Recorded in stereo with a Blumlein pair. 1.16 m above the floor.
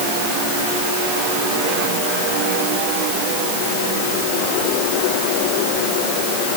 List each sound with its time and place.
Only background noise.